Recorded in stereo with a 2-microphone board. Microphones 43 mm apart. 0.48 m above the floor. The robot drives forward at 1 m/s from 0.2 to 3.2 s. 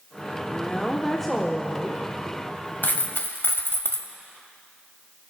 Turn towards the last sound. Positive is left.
turn(degrees=60)  # may be behind; listen again after turning